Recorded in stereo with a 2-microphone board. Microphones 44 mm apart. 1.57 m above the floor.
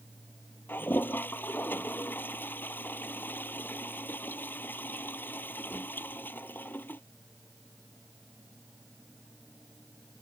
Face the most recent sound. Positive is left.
turn(degrees=50)  # may be behind; listen again after turning